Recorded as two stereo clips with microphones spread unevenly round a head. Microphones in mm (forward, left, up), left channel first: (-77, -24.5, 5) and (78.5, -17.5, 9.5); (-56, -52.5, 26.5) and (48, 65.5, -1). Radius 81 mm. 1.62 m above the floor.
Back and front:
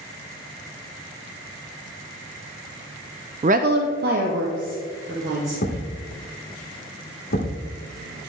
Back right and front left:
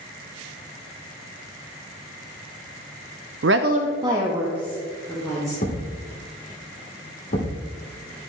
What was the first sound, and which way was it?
A woman speaking, 50° left.